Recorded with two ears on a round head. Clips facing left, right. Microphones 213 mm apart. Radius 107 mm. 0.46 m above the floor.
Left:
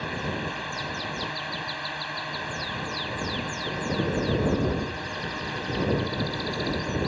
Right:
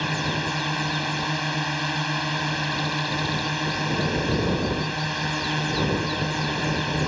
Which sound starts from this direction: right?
A drone, at 0.0 s.